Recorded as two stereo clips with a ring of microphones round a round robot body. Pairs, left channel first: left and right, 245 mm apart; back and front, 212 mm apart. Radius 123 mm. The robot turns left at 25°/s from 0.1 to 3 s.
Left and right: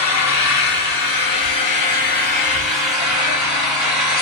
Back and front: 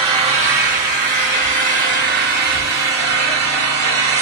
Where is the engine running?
65° left, 2.5 m; by 4.2 s 5° right, 2.5 m.